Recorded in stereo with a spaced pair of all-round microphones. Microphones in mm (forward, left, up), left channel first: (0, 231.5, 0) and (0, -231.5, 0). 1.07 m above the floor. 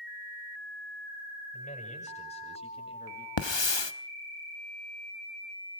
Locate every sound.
1.5 s a man speaking: 15° left (ahead or behind), 7.5 m; by 3.3 s 10° left (ahead or behind), 7 m
3.4 s a hiss: 80° left, 1.2 m